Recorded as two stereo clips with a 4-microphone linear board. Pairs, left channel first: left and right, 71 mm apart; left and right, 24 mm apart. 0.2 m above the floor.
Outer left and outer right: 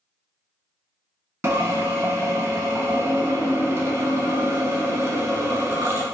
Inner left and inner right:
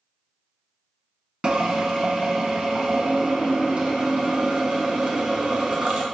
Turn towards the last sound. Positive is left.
turn(degrees=-40)  # may be behind; listen again after turning